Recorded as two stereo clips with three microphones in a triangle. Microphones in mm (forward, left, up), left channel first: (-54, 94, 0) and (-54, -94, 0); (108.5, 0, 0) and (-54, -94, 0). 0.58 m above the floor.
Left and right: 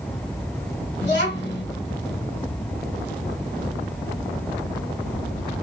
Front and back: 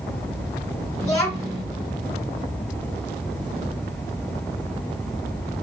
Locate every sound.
1.0 s a child speaking: 80° left, 1.6 m